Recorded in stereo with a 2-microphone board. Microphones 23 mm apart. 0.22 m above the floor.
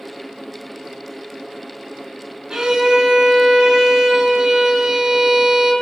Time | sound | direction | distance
2.5 | a violin | 35° right (ahead or behind) | 0.6 m